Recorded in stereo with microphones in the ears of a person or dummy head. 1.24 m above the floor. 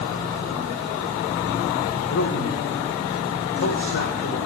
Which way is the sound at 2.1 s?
75° left (ahead or behind).